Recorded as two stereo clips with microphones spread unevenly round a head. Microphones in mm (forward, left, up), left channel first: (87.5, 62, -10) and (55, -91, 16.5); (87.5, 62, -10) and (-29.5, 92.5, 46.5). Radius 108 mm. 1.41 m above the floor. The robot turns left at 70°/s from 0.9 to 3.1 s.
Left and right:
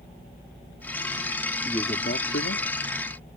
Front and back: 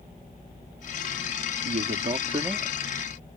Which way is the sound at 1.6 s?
160° left.